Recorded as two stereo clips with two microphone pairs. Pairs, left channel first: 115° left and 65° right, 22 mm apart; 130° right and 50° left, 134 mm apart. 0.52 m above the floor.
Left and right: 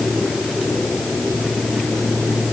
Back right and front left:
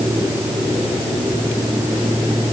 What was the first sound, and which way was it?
Only background noise.